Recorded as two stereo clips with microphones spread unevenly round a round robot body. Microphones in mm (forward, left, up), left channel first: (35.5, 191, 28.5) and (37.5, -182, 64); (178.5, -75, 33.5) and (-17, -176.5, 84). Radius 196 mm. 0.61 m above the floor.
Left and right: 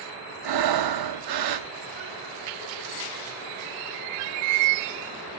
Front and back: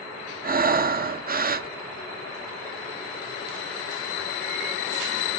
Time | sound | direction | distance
0.4 | breathing | 100° right | 1.1 m